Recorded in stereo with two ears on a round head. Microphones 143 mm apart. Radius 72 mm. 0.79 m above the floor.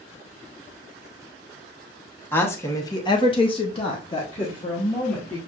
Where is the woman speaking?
15° left (ahead or behind), 1.2 m; by 5.4 s 25° left (ahead or behind), 2 m.